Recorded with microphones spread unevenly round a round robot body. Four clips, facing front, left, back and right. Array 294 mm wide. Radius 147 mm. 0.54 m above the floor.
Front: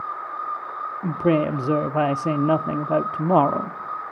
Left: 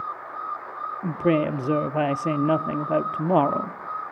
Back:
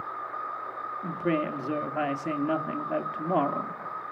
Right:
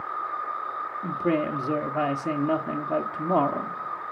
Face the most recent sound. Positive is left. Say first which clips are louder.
# left 4 dB, front 8 dB
turn(degrees=15)